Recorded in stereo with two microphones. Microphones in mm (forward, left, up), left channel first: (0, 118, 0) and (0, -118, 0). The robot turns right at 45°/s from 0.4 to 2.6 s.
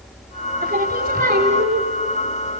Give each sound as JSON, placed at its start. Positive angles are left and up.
{"t": 0.6, "sound": "singing", "azimuth_deg": -95, "distance_m": 1.5}